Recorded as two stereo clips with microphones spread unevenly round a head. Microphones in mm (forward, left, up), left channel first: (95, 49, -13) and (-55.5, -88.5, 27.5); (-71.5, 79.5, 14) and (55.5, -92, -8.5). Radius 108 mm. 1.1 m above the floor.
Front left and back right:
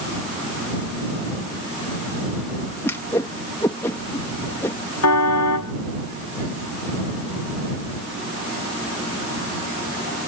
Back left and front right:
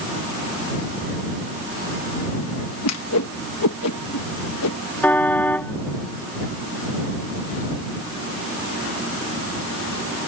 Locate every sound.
2.8 s a whoosh: 120° left
5.0 s a car horn: 45° left